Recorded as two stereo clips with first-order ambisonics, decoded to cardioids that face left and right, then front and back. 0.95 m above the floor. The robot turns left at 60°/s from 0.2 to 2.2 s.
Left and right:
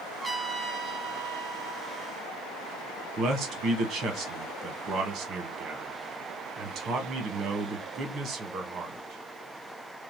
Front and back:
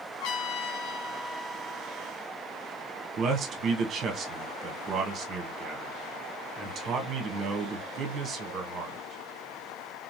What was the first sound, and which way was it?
A trumpet, 5° right.